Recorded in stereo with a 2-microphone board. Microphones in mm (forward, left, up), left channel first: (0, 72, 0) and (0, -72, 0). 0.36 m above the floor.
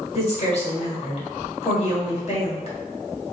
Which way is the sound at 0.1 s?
50° left (ahead or behind).